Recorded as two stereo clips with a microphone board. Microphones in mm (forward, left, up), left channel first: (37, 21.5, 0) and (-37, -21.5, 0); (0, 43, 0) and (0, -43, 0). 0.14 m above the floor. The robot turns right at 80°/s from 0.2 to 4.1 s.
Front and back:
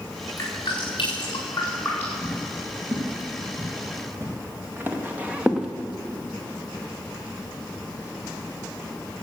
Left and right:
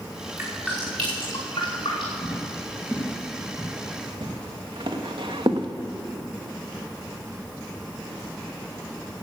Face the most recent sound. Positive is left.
turn(degrees=-70)